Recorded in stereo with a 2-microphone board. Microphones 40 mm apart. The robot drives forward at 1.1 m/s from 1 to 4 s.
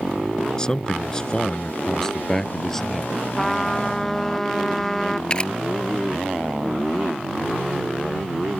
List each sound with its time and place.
0.6 s a man speaking: 20° left (ahead or behind); by 3.1 s 10° left (ahead or behind)
3.4 s a trumpet: 10° left (ahead or behind)
5.3 s a camera shutter: 25° left (ahead or behind)